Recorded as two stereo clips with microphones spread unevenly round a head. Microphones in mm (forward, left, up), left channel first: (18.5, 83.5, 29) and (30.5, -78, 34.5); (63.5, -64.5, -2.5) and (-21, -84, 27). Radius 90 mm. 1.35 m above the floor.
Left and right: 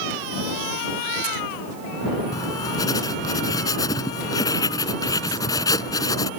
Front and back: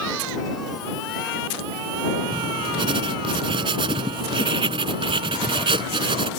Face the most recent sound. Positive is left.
turn(degrees=165)